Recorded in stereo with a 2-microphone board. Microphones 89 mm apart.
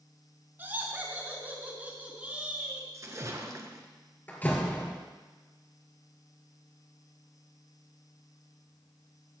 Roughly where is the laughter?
Right.